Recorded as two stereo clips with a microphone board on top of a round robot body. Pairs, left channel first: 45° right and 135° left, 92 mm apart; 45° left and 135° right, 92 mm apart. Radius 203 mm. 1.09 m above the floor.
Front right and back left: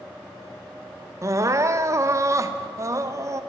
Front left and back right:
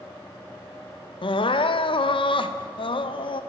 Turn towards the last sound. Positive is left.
turn(degrees=75)